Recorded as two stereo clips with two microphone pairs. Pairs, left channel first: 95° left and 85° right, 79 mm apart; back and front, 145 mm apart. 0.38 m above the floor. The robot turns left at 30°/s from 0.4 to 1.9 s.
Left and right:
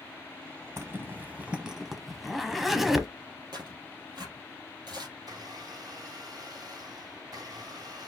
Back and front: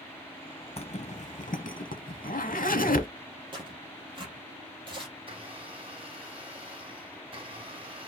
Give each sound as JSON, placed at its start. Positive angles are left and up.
{"t": 0.8, "sound": "a zipper", "azimuth_deg": -135, "distance_m": 0.8}
{"t": 3.5, "sound": "tearing paper", "azimuth_deg": -55, "distance_m": 3.0}
{"t": 5.2, "sound": "a blender", "azimuth_deg": -50, "distance_m": 4.5}